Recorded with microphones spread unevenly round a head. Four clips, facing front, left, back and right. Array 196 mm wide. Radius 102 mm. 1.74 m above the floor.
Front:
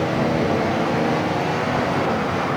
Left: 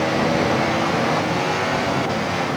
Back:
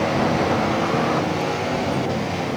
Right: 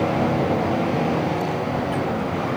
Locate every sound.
Only background noise.